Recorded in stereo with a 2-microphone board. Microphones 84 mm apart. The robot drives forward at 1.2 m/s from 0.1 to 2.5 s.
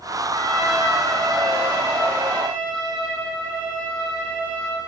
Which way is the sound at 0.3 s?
50° right (ahead or behind).